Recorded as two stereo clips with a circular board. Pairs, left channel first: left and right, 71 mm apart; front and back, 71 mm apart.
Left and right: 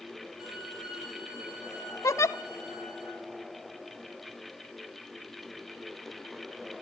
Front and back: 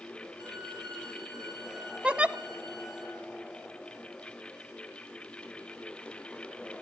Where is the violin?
170° right, 9 m.